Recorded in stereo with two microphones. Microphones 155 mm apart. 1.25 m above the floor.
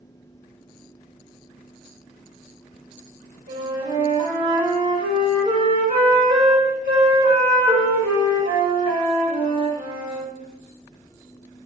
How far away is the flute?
About 2 m.